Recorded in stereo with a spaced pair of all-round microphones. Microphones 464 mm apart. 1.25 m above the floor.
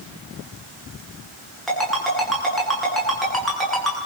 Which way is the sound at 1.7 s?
Centre (ahead or behind).